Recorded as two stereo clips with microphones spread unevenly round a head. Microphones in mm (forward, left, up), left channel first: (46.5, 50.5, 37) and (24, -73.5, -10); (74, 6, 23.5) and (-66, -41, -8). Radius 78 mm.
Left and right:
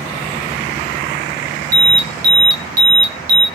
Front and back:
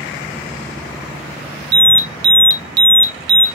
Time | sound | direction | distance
1.7 | an alarm | 145° right | 0.6 m